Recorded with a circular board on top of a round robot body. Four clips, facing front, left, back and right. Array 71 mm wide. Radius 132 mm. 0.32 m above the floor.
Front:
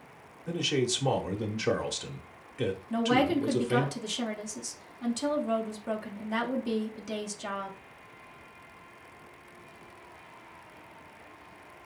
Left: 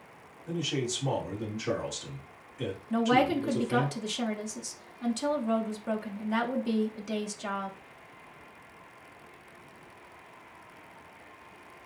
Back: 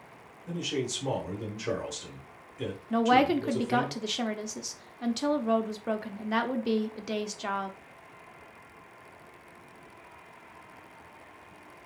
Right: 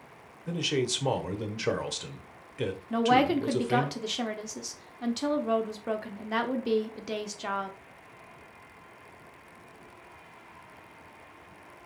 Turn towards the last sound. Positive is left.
turn(degrees=-145)